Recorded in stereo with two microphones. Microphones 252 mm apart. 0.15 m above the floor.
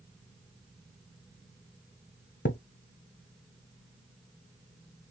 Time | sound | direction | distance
2.5 | a thud | 50° left (ahead or behind) | 0.8 m